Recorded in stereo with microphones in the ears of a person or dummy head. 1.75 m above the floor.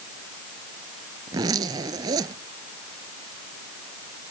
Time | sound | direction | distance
1.3 | a zipper | 30° right (ahead or behind) | ?